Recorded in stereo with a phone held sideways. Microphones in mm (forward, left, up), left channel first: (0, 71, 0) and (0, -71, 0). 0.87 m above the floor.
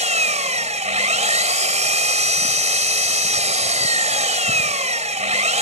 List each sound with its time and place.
0.0 s an engine running: 55° right (ahead or behind)